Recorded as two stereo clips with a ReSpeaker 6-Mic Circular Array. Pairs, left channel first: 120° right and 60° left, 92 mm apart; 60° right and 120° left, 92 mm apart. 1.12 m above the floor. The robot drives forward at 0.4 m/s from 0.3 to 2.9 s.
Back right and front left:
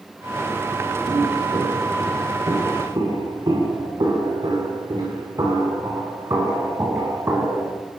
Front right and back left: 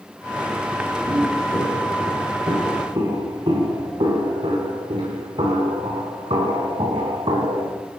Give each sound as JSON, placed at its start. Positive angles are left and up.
{"t": 1.1, "sound": "footsteps", "azimuth_deg": 85, "distance_m": 8.0}